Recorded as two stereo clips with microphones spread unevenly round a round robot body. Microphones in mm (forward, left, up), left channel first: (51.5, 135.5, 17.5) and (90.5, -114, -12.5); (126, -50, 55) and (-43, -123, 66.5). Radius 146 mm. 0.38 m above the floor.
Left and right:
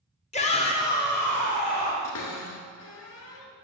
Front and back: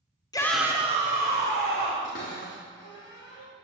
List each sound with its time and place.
0.3 s a shout: 50° left, 0.9 m; by 1.9 s 170° right, 2.5 m
2.0 s a cupboard door: 75° left, 2 m